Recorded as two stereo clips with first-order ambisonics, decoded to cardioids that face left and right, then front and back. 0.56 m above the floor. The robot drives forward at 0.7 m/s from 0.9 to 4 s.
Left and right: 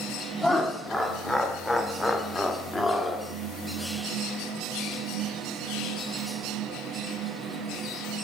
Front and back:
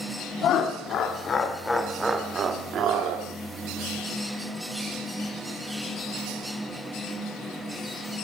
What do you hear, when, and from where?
0.4 s laughter: 10° left, 1.1 m; by 3.3 s 175° left, 1.3 m